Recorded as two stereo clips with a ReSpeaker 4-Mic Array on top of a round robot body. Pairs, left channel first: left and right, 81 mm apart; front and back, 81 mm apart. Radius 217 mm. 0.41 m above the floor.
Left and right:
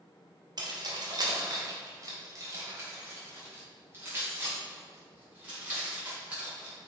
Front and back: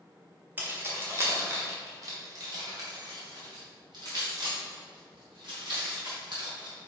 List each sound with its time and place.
0.6 s keys jangling: 115° right, 2.0 m; by 6.7 s 160° right, 5 m